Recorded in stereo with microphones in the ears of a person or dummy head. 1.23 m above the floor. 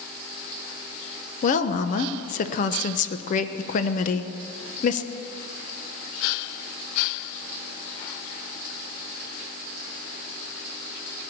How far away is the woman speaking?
About 0.9 m.